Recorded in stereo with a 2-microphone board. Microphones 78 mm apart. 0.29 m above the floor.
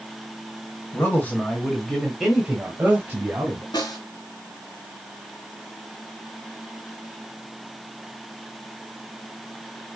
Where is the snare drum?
65° left (ahead or behind), 3 m.